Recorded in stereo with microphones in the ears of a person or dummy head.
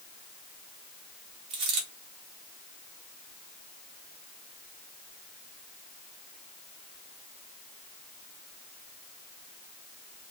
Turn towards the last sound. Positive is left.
turn(degrees=-35)  # may be behind; listen again after turning